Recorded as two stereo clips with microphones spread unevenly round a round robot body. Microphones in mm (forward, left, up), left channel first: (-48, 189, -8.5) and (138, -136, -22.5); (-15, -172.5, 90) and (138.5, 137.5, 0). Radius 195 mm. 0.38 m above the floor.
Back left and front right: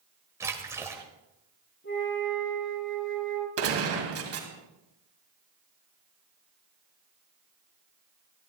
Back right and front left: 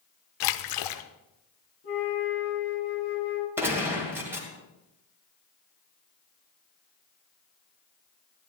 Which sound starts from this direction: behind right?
A splash, at 0.4 s.